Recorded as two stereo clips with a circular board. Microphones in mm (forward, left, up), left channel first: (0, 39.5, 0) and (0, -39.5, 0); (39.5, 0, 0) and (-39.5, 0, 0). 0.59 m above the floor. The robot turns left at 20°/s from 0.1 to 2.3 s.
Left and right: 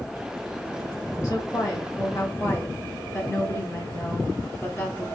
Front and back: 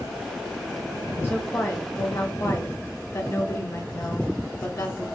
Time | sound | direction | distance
1.2 | a woman speaking | 55° left | 1.5 m